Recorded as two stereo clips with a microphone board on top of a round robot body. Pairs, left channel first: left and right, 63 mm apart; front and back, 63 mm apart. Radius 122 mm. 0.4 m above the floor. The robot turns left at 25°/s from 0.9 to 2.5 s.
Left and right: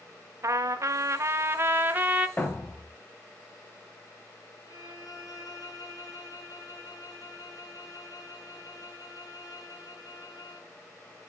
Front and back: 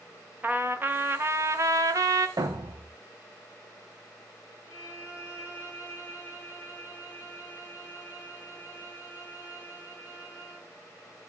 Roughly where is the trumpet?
Behind right.